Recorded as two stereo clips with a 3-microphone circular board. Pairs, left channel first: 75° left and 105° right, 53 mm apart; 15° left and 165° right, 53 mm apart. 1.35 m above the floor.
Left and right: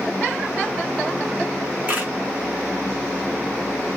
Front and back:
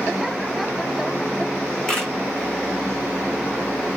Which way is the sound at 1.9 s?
65° right.